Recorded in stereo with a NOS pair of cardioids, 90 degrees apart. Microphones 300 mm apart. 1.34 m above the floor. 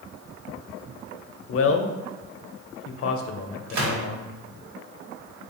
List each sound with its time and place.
1.5 s a man speaking: 50° left, 0.6 m
3.7 s a gunshot: 65° right, 1.3 m